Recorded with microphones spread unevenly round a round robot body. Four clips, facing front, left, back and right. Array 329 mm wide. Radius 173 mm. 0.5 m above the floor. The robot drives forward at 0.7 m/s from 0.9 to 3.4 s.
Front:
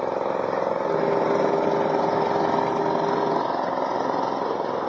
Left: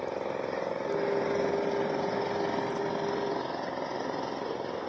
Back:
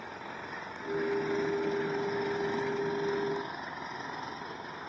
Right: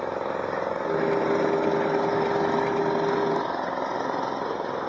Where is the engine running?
15° right.